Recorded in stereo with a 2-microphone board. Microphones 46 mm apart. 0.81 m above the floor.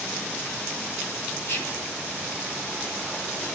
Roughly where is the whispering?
Left.